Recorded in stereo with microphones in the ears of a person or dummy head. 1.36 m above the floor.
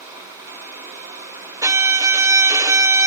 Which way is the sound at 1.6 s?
20° right (ahead or behind).